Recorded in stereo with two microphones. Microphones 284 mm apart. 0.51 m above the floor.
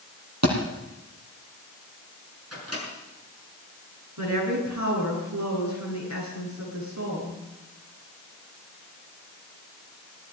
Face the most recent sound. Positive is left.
turn(degrees=-80)